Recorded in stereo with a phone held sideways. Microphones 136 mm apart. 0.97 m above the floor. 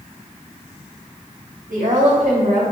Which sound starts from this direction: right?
A woman speaking, at 1.7 s.